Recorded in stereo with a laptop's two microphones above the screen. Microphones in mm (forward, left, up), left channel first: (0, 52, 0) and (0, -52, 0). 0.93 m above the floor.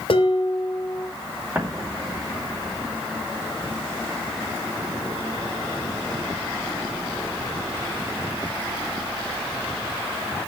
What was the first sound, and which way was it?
Dishes clattering, 60° left (ahead or behind).